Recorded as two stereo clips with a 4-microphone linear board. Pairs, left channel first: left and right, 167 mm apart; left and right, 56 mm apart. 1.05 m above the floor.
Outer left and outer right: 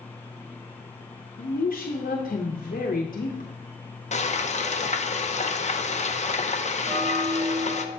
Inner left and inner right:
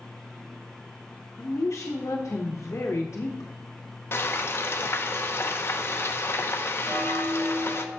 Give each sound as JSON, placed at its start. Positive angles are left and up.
{"t": 1.4, "sound": "a woman speaking", "side_deg": 60, "distance_m": 0.8}
{"t": 4.1, "sound": "frying", "side_deg": 45, "distance_m": 0.5}
{"t": 6.8, "sound": "a bell", "side_deg": -40, "distance_m": 2.5}